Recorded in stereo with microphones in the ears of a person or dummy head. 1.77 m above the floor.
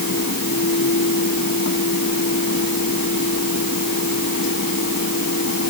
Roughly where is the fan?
Left.